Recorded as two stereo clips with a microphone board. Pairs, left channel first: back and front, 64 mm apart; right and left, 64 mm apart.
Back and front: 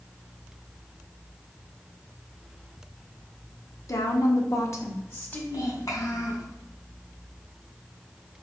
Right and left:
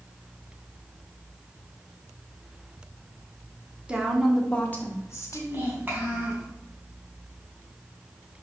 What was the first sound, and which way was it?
A woman speaking, 160° left.